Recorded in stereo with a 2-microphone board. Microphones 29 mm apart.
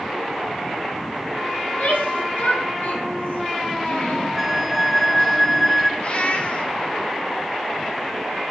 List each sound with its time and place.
1.6 s a shout: 70° left (ahead or behind), 6 m; by 4.3 s 85° left, 5 m
4.4 s a flute: centre (ahead or behind), 2 m
6.0 s a cat meowing: 45° left (ahead or behind), 1.9 m